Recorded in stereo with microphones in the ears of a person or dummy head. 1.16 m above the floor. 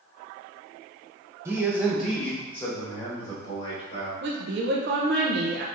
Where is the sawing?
No sawing in this recording.